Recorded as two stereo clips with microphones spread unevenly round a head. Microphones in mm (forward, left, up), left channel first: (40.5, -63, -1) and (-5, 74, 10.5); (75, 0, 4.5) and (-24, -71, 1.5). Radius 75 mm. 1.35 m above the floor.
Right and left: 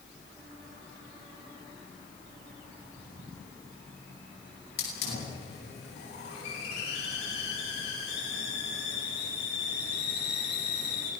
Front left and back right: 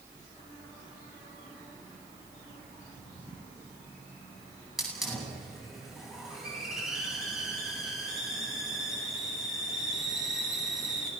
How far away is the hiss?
About 9.5 m.